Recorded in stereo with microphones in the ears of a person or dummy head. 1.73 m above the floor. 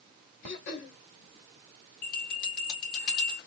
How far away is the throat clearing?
About 2 m.